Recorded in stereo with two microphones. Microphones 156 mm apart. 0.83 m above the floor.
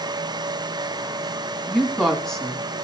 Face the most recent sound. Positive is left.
turn(degrees=5)  # may be behind; listen again after turning